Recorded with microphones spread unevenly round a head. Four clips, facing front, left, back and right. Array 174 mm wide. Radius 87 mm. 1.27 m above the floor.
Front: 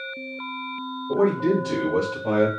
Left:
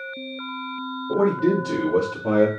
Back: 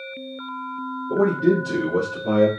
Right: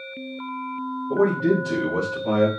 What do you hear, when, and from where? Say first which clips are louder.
1.1 s a man speaking: even, back 2 dB; 70° left, 2.5 m